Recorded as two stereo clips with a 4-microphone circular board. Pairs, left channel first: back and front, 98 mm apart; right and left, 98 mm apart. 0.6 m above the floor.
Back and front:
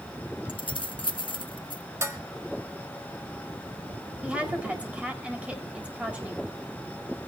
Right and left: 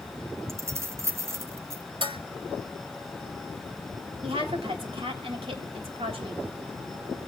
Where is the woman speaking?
75° left, 3 m.